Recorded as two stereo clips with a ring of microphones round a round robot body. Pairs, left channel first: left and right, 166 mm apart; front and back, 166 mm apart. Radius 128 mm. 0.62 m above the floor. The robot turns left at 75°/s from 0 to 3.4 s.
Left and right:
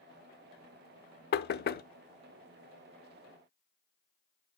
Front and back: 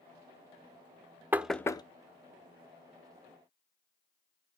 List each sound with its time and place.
1.3 s knocking: 100° left, 0.8 m; by 1.8 s 65° left, 0.8 m